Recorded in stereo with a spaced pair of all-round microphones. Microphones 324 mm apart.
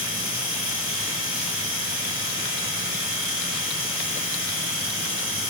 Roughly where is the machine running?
Right.